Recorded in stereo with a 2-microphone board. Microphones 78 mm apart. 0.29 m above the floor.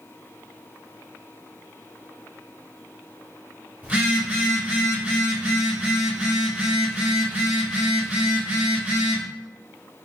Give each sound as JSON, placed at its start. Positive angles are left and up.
{"t": 3.8, "sound": "a phone buzzing", "side_deg": -20, "distance_m": 0.7}